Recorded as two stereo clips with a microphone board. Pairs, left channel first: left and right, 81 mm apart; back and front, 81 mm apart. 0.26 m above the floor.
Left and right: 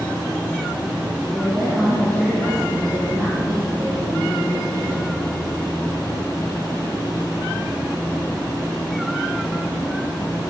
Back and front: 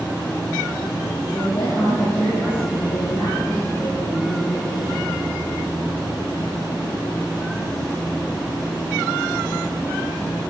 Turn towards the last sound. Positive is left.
turn(degrees=150)